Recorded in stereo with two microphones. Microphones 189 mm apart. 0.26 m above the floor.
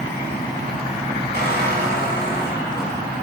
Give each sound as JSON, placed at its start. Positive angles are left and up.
{"t": 1.3, "sound": "a squeak", "side_deg": -60, "distance_m": 1.7}